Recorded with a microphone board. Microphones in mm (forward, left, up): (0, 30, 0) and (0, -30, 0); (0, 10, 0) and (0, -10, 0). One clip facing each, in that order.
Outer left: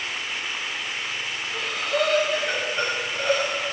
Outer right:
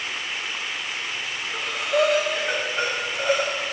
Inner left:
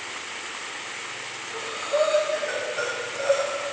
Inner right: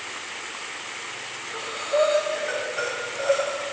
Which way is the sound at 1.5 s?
10° right (ahead or behind).